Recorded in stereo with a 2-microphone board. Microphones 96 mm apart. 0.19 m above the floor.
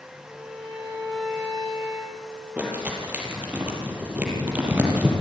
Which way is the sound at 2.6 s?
15° right (ahead or behind).